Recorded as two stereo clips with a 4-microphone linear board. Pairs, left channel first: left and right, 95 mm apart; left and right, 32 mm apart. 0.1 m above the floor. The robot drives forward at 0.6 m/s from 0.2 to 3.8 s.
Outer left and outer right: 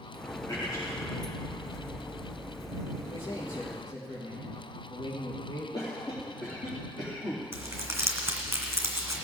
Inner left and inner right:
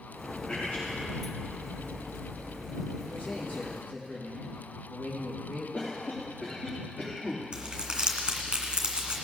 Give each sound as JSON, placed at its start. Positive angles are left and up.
{"t": 0.5, "sound": "a man speaking", "side_deg": 50, "distance_m": 4.5}
{"t": 3.0, "sound": "a man speaking", "side_deg": 65, "distance_m": 5.0}
{"t": 5.7, "sound": "a cough", "side_deg": 50, "distance_m": 3.0}
{"t": 7.5, "sound": "crumpling", "side_deg": -25, "distance_m": 2.0}